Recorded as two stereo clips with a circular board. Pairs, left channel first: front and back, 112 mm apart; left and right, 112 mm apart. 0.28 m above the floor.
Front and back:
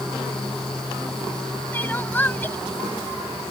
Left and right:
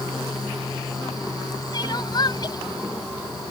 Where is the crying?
65° left.